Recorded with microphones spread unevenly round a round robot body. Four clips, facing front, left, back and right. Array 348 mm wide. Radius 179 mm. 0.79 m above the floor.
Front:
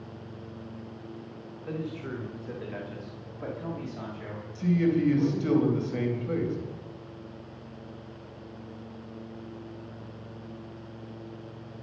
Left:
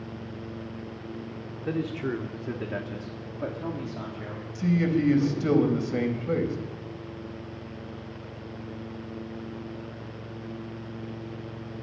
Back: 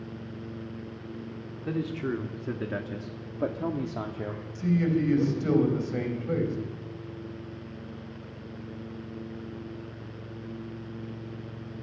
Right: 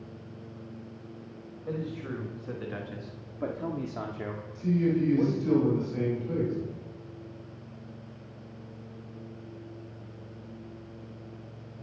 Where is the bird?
I don't hear a bird.